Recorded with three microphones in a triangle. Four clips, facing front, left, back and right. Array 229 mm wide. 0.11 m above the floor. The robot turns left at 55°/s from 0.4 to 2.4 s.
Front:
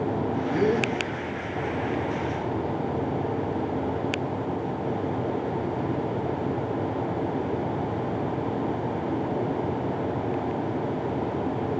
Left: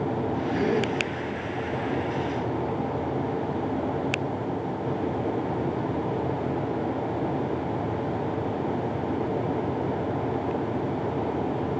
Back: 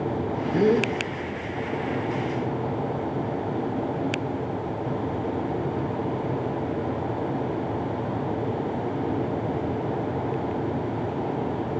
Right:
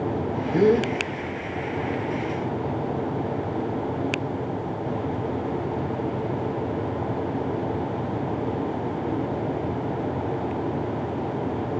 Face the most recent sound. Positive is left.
turn(degrees=140)